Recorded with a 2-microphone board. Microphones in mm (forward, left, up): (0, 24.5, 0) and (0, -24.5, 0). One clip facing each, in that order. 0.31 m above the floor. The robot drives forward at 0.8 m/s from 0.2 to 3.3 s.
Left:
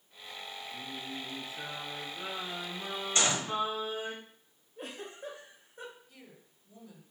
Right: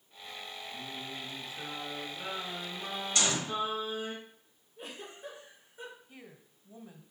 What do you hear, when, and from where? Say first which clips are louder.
0.7 s singing: left 1 dB; 20° left (ahead or behind), 4.5 m; by 4.2 s 35° left (ahead or behind), 2.5 m
3.1 s a gunshot: left 2 dB; 30° left (ahead or behind), 1.4 m
4.8 s a giggle: left 2 dB; 55° left (ahead or behind), 4 m
6.1 s a woman speaking: right 3 dB; 30° right (ahead or behind), 1.5 m